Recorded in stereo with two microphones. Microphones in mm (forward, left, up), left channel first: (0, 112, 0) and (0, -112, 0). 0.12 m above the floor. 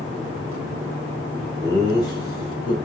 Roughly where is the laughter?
Centre.